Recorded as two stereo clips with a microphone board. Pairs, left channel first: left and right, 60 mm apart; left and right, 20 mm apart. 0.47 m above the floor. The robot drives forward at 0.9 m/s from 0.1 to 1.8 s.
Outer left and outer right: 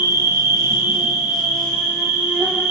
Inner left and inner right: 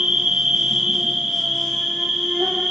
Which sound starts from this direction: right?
An insect, at 0.0 s.